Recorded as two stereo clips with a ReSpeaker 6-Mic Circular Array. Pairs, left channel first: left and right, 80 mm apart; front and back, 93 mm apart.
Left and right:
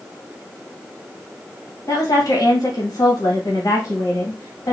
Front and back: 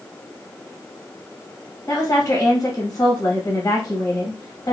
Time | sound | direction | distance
1.9 | a woman speaking | 50° left | 1.6 m